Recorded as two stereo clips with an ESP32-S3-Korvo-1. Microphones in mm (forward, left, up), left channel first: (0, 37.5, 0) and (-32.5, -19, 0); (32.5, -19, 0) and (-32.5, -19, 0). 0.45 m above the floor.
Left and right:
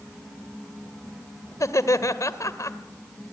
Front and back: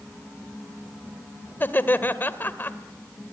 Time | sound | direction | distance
1.6 | laughter | 50° left | 1.7 m